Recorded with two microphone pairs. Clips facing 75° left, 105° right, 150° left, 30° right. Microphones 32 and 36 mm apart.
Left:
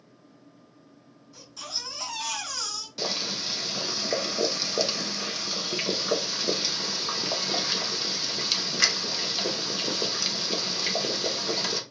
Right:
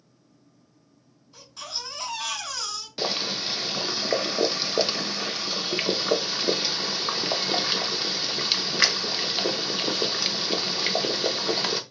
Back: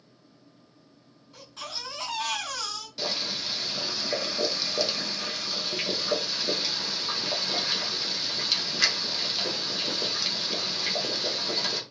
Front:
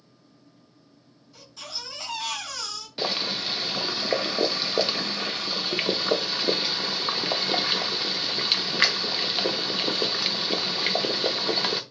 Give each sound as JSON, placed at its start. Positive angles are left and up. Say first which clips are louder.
{"t": 1.3, "sound": "a baby crying", "louder": "right 1 dB, back 1 dB", "azimuth_deg": -165, "distance_m": 2.5}
{"t": 3.0, "sound": "boiling", "louder": "right 3 dB, front 4 dB", "azimuth_deg": -55, "distance_m": 0.6}